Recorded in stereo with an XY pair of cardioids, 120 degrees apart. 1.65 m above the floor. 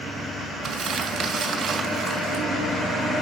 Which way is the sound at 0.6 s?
55° right.